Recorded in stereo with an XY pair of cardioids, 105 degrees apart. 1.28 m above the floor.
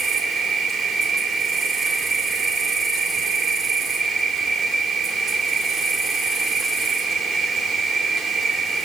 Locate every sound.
0.0 s an insect: 55° right, 2.5 m